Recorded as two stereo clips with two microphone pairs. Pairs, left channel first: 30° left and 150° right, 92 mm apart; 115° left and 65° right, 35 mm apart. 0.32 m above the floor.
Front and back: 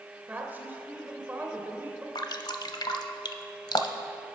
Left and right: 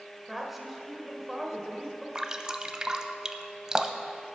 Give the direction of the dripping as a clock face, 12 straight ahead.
12 o'clock.